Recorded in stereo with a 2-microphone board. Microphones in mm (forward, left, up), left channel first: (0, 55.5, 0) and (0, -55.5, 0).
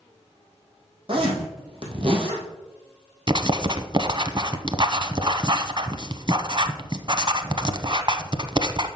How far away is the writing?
About 0.7 m.